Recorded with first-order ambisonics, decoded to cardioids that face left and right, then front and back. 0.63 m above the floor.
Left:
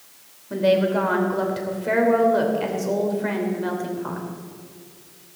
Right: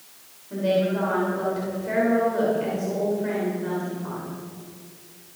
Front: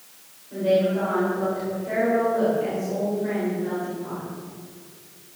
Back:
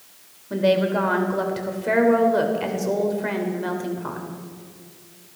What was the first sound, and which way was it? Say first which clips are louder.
A woman speaking: left 4 dB, back 1 dB; 145° left.